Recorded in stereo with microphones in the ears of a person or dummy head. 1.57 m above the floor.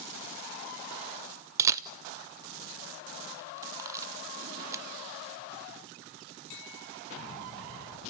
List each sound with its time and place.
1.6 s a camera shutter: 20° right (ahead or behind), 0.5 m